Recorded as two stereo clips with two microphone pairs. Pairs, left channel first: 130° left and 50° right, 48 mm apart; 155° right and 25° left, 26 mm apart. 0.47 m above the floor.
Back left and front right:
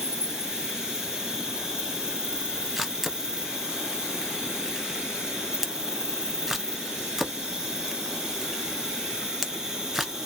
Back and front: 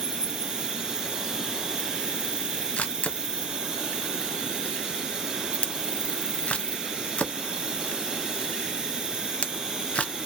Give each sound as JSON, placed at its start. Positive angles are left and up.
{"t": 0.0, "sound": "an insect", "azimuth_deg": 15, "distance_m": 0.9}
{"t": 2.8, "sound": "a camera shutter", "azimuth_deg": -130, "distance_m": 0.6}